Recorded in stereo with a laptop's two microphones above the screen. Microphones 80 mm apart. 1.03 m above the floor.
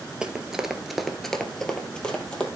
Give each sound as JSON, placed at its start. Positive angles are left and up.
{"t": 0.2, "sound": "running footsteps", "side_deg": -10, "distance_m": 1.2}